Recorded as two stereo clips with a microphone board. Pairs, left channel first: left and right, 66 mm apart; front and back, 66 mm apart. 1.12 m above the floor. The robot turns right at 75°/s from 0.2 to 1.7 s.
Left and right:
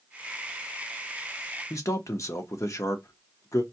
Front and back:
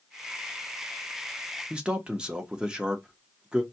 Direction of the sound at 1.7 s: 110° left.